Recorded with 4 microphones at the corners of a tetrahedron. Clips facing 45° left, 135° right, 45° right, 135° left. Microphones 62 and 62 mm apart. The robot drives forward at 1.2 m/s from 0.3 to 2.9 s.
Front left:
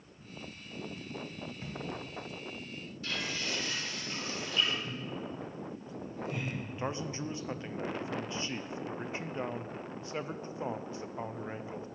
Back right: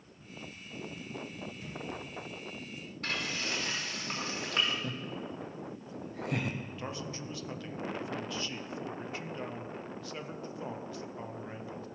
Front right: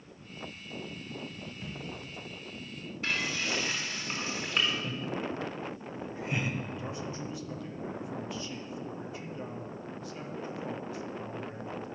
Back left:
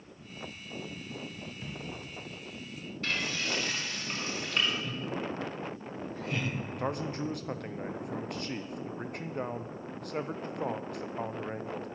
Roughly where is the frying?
Behind right.